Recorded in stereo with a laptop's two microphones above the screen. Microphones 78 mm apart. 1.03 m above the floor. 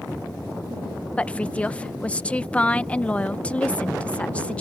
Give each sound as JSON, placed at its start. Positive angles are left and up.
{"t": 1.2, "sound": "a woman speaking", "side_deg": 15}